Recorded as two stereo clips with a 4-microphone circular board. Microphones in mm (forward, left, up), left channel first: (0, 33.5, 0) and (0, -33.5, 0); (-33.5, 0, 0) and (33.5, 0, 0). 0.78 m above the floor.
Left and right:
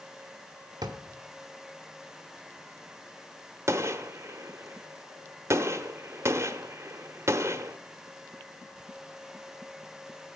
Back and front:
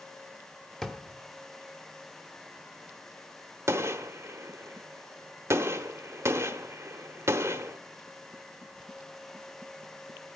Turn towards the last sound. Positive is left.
turn(degrees=-45)